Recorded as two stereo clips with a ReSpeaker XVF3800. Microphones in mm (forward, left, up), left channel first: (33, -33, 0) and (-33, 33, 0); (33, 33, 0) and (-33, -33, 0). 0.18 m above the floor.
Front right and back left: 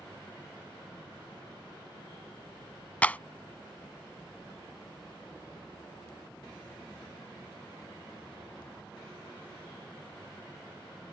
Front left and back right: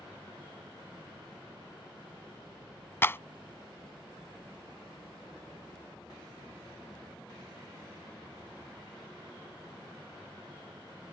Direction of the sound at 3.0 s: 10° left.